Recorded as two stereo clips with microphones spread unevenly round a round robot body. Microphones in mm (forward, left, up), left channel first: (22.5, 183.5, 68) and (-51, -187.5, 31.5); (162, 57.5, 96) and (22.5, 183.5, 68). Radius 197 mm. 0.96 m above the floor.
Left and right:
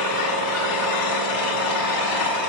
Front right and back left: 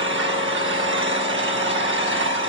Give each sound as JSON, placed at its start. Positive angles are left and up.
{"t": 0.0, "sound": "an engine running", "azimuth_deg": 120, "distance_m": 5.0}